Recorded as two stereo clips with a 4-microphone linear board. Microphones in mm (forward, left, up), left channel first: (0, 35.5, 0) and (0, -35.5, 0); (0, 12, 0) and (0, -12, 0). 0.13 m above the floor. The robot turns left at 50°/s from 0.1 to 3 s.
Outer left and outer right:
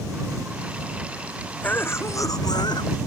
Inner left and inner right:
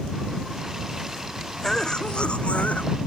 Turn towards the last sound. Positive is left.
turn(degrees=90)